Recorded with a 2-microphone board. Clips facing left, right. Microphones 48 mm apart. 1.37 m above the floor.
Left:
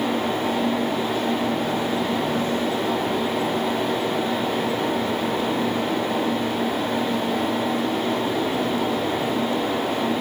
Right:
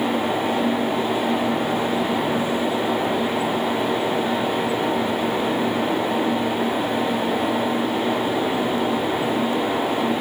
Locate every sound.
Only background noise.